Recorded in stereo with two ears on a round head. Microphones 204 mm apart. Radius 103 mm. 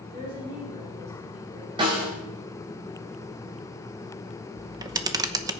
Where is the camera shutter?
15° right (ahead or behind), 0.9 m.